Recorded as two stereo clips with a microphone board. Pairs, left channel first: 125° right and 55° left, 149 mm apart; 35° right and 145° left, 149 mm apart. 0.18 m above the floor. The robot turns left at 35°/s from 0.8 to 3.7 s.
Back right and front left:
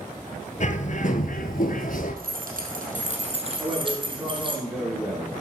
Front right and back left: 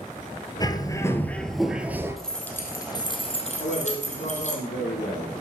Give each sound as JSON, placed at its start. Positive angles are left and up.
{"t": 0.6, "sound": "a bird", "azimuth_deg": -95, "distance_m": 1.1}
{"t": 2.2, "sound": "keys jangling", "azimuth_deg": 55, "distance_m": 2.5}
{"t": 3.6, "sound": "a man speaking", "azimuth_deg": -25, "distance_m": 7.0}